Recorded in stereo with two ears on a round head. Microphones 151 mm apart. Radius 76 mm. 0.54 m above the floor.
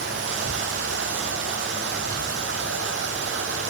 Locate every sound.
0.0 s running water: 75° right (ahead or behind), 2.0 m